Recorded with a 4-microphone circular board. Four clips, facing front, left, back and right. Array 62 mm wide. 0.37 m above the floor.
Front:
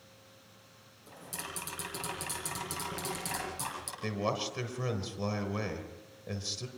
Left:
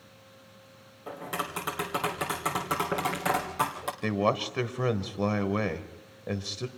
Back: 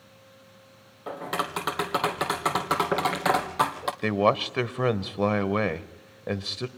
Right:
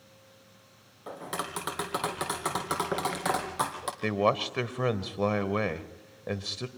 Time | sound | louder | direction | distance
1.1 | tapping | left 1 dB, back 15 dB | 175° right | 2.5 m
4.0 | a man speaking | right 1 dB, back 11 dB | 170° right | 1.1 m